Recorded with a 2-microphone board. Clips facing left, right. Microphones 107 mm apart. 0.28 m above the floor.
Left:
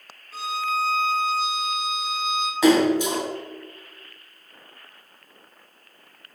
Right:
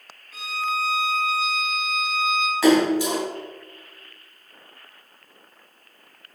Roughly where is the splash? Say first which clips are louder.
Even; centre.